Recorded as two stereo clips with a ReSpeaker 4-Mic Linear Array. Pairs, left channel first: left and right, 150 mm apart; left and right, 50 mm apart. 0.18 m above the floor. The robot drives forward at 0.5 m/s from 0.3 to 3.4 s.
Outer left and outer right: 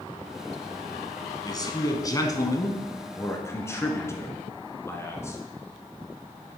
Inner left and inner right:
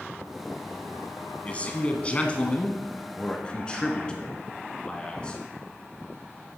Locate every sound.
1.4 s a man speaking: 30° left (ahead or behind), 1.2 m; by 5.4 s 20° left (ahead or behind), 1.8 m